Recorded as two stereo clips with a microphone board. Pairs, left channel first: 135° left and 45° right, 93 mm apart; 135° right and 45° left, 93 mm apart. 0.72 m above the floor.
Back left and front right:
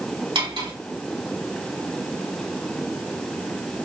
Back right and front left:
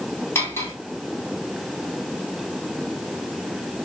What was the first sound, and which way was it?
Cutlery clinking, 70° right.